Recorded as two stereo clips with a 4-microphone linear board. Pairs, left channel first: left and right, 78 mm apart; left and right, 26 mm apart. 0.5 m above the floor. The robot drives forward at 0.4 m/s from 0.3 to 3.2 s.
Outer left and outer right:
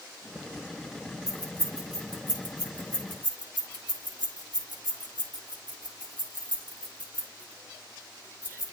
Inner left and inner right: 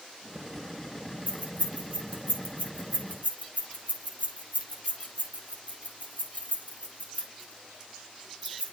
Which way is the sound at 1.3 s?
55° left (ahead or behind).